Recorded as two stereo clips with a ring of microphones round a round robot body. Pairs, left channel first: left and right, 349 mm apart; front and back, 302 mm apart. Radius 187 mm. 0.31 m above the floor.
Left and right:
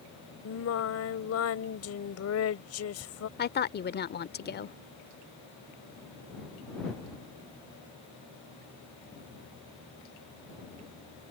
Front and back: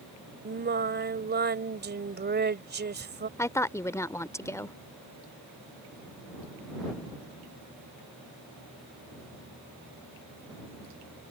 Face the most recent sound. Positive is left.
turn(degrees=70)